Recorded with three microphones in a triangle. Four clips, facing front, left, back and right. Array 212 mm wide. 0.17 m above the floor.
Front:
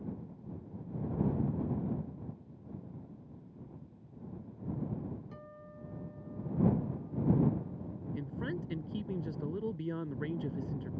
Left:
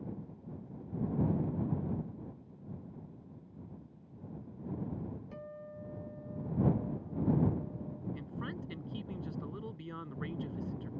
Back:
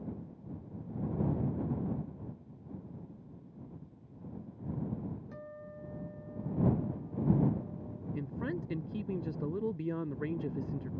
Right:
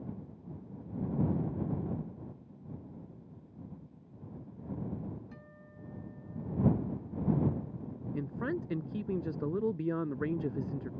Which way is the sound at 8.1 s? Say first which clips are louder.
Right 7 dB, back 2 dB; 95° right.